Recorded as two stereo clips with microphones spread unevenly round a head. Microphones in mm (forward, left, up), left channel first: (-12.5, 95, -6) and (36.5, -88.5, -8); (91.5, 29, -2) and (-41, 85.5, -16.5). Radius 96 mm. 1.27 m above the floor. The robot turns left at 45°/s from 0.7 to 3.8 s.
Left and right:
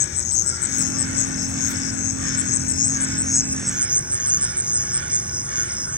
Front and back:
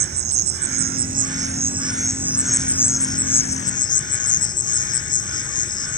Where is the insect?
150° left; by 6.0 s 10° left.